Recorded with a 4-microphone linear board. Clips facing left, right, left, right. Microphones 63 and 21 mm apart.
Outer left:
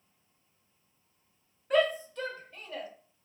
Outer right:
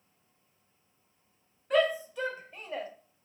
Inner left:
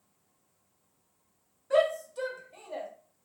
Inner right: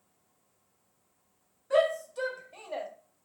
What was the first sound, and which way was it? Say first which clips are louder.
A shout: even, even; centre (ahead or behind).